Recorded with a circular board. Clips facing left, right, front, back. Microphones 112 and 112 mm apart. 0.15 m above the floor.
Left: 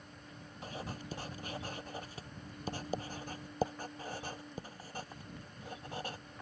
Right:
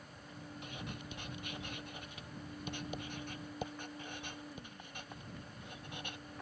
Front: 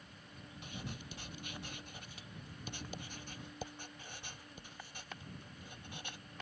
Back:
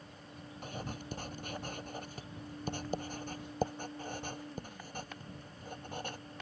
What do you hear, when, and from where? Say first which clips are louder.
0.6 s writing: left 5 dB, back 5 dB; 140° left